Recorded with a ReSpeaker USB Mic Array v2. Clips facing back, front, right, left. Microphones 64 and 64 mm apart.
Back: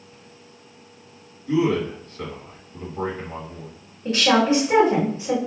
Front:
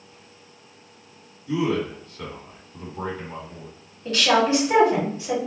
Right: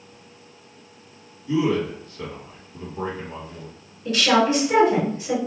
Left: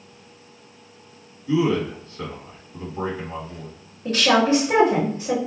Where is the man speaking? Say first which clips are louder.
Back 3 dB, left 1 dB; 135° left, 1.7 m.